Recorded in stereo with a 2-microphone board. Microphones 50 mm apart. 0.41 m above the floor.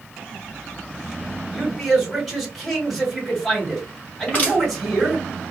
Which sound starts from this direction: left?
Crushing, at 4.3 s.